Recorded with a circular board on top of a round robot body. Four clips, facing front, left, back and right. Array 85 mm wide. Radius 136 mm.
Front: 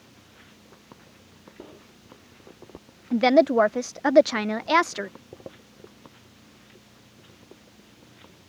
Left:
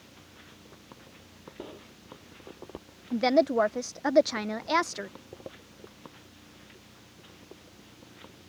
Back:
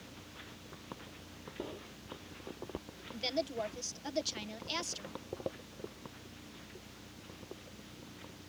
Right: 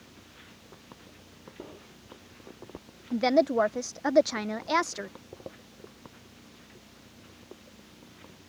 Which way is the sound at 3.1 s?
Straight ahead.